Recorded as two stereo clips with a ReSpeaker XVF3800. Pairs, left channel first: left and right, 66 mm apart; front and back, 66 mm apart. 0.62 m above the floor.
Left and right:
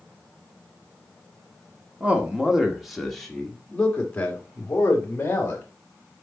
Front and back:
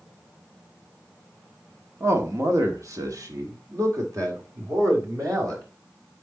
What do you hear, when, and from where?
2.0 s a man speaking: 150° right, 1.6 m; by 5.6 s 145° left, 3 m